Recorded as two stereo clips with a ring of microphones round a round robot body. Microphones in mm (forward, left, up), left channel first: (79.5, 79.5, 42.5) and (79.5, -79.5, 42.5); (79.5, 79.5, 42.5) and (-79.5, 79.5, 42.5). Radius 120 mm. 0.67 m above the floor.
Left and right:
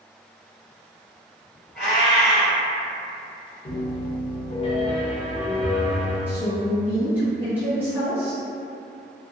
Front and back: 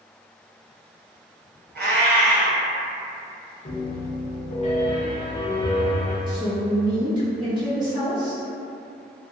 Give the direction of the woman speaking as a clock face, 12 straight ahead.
5 o'clock.